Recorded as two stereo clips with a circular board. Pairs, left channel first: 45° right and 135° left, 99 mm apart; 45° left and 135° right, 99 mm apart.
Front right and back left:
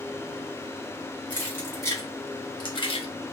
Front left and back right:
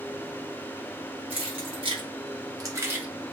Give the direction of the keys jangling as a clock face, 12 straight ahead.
4 o'clock.